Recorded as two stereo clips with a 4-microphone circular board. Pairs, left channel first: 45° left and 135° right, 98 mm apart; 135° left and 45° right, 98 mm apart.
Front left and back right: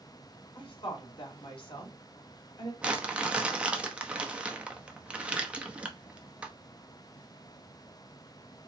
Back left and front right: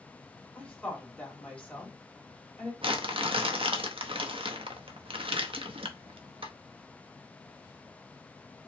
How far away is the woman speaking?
About 2.5 m.